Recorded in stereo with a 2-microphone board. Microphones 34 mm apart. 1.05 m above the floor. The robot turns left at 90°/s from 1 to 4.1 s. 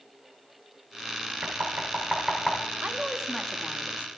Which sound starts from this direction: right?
Knocking, at 1.4 s.